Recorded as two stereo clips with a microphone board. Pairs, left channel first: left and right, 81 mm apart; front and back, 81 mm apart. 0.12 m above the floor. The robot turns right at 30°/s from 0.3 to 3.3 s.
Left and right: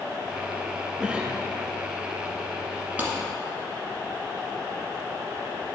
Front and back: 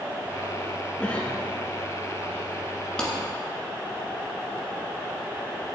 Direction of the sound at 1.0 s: 45° right.